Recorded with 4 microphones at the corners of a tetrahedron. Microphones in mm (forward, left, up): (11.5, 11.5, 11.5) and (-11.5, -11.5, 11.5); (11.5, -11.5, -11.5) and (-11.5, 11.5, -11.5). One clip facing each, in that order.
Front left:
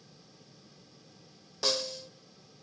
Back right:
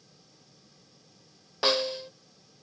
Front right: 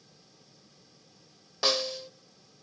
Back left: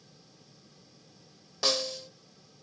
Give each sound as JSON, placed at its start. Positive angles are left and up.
{"t": 1.6, "sound": "a snare drum", "azimuth_deg": -115, "distance_m": 1.2}